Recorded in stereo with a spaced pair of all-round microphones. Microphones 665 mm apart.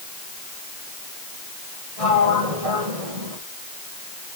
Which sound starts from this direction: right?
A sliding door, at 2.0 s.